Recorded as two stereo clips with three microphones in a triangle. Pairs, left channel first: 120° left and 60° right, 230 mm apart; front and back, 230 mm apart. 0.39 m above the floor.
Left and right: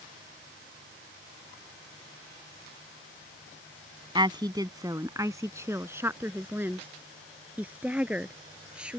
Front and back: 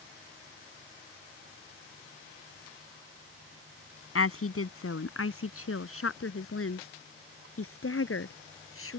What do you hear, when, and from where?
4.2 s a woman speaking: 10° left; by 9.0 s 25° left